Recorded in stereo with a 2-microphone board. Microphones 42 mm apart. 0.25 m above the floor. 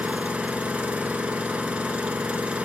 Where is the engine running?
30° right (ahead or behind), 0.9 m.